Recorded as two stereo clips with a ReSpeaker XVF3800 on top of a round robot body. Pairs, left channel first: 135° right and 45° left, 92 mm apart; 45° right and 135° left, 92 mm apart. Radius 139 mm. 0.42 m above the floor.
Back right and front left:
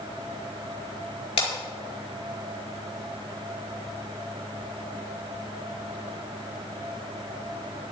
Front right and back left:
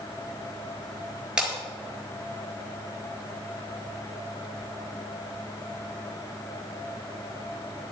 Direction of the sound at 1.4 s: 145° right.